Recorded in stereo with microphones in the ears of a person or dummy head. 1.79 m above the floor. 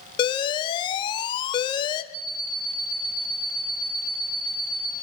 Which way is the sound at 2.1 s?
70° right (ahead or behind).